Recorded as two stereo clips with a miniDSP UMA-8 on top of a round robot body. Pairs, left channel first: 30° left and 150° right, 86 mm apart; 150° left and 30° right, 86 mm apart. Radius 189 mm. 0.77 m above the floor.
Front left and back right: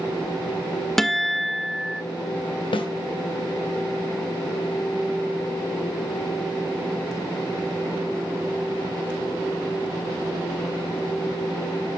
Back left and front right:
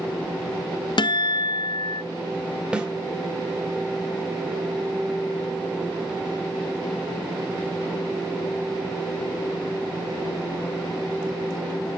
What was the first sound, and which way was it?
A guitar, 115° left.